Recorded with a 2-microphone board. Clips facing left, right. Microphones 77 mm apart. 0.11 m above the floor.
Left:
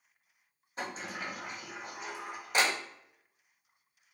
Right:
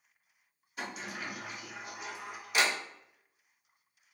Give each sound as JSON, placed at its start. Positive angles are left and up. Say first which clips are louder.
{"t": 0.8, "sound": "a sliding door", "louder": "left 1 dB", "side_deg": 40, "distance_m": 1.0}